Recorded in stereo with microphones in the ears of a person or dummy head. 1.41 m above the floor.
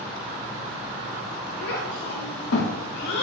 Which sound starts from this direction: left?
A child speaking, at 1.6 s.